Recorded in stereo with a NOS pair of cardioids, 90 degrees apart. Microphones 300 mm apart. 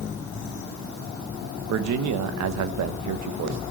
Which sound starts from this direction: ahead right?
A man speaking, at 1.7 s.